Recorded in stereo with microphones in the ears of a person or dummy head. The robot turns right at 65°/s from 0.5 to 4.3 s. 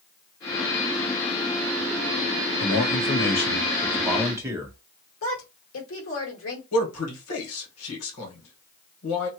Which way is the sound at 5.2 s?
70° left (ahead or behind).